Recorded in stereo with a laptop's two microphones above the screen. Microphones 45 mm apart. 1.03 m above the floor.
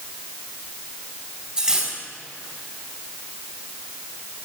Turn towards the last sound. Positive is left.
turn(degrees=-10)  # may be behind; listen again after turning